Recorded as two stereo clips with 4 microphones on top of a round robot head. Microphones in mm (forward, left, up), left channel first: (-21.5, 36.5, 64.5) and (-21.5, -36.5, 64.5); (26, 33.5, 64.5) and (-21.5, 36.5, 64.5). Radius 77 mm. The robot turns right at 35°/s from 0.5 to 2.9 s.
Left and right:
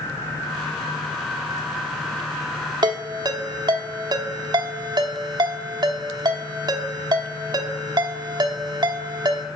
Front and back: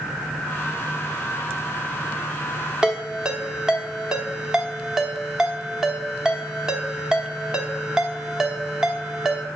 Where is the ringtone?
110° right, 1.1 m; by 9.5 s 105° right, 1.1 m.